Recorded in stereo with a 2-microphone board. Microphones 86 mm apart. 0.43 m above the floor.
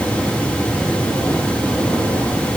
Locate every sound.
Only background noise.